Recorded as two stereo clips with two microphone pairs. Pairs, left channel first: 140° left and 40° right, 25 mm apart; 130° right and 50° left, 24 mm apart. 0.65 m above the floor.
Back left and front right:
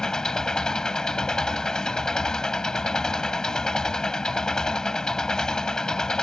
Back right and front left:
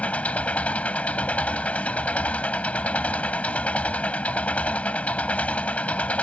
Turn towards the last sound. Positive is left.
turn(degrees=-155)